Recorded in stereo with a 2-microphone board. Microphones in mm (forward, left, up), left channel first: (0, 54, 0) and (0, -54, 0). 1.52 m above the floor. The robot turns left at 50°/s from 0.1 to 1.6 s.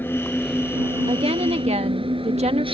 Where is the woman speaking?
60° right (ahead or behind); by 2.6 s 80° right.